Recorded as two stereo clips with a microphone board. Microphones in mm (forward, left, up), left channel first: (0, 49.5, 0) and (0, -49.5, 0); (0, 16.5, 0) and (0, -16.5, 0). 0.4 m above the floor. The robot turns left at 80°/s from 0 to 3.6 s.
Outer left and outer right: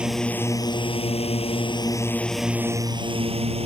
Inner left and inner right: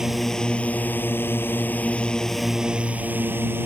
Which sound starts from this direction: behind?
A drone, at 0.0 s.